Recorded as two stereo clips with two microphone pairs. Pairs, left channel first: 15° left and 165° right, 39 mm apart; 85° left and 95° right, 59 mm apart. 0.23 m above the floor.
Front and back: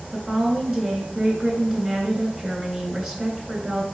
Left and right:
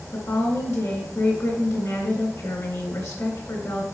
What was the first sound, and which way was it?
A woman speaking, 110° left.